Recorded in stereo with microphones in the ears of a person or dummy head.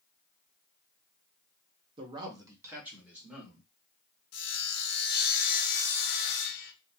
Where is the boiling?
No boiling in this recording.